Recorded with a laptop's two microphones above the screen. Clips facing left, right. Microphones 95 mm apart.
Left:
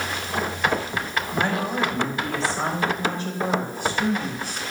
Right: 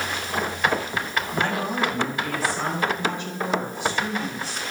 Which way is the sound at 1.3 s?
10° left (ahead or behind).